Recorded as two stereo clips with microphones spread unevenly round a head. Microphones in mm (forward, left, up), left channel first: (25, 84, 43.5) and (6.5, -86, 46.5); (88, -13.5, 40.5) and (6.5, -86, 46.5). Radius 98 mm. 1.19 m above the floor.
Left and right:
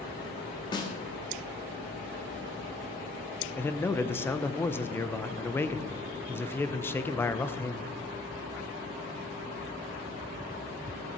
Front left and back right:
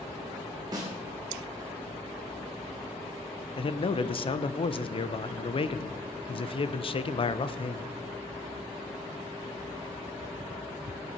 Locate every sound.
0.7 s a snare drum: 150° left, 1.4 m
3.6 s a man speaking: 5° left, 0.8 m